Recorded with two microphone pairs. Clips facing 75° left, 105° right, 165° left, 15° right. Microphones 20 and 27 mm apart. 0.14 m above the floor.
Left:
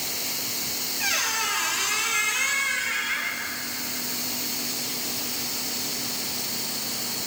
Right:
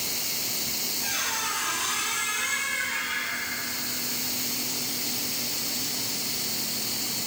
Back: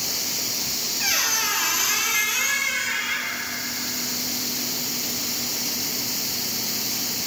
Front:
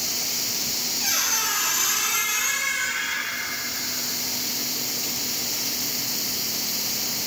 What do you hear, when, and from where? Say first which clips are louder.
1.0 s a squeak: left 6 dB, back 2 dB; 105° left, 1.3 m